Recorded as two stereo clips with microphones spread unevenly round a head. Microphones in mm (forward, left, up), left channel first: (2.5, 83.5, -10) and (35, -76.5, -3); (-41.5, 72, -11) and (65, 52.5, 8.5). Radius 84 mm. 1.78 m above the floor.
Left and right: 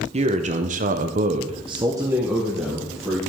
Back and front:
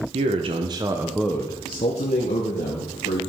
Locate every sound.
0.1 s a man speaking: 30° right, 1.3 m; by 3.2 s 165° right, 2 m